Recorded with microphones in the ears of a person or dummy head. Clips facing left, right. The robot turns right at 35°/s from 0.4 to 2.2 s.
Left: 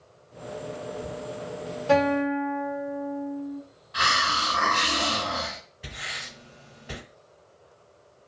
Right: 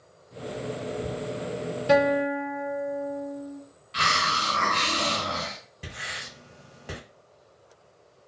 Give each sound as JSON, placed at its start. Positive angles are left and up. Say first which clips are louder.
{"t": 1.9, "sound": "a guitar", "louder": "even", "side_deg": -20, "distance_m": 0.6}
{"t": 3.9, "sound": "a hiss", "louder": "even", "side_deg": -35, "distance_m": 1.9}
{"t": 5.8, "sound": "writing", "louder": "right 2 dB", "side_deg": -65, "distance_m": 1.3}